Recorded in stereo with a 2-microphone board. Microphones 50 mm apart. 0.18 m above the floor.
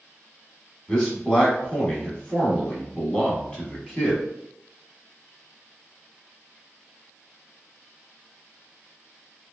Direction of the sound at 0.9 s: 20° left (ahead or behind).